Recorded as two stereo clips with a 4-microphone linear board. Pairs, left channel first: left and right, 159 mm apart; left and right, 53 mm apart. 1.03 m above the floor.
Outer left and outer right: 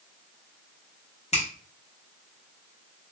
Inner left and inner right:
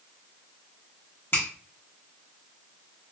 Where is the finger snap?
50° left (ahead or behind), 1.2 m.